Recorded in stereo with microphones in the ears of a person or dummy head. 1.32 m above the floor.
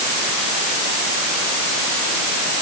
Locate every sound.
Only background noise.